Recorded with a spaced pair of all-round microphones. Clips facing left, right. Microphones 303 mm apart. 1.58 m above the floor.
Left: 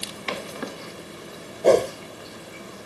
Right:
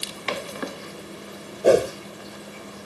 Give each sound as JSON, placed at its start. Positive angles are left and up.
{"t": 1.6, "sound": "a whoosh", "side_deg": -10}